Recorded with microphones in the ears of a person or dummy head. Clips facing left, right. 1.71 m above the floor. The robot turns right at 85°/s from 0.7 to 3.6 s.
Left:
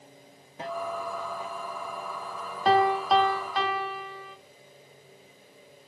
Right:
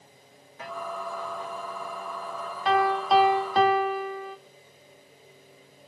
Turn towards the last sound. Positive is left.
turn(degrees=-135)